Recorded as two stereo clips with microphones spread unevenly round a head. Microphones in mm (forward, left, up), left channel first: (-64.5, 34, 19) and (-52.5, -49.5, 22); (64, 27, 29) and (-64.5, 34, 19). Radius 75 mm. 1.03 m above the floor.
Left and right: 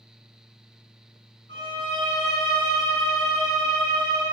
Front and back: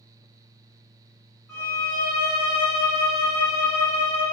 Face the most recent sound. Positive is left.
turn(degrees=65)